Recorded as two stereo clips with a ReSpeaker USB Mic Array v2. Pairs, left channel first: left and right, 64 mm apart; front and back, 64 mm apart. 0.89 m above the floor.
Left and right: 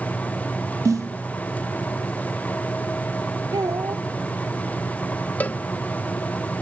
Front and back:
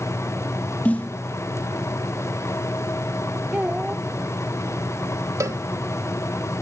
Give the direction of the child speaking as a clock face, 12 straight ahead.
4 o'clock.